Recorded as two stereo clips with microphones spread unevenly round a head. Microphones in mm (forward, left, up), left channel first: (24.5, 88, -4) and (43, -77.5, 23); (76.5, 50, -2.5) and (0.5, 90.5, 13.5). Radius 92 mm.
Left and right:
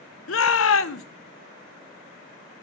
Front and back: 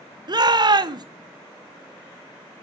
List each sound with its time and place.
0.3 s a shout: 115° left, 0.9 m